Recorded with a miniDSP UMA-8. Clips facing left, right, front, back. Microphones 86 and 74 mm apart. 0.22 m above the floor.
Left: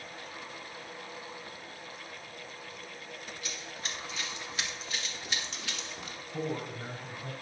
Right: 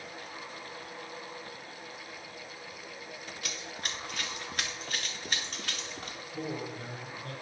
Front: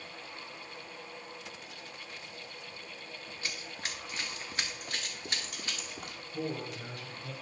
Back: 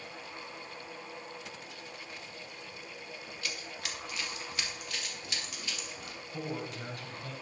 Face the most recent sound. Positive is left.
turn(degrees=140)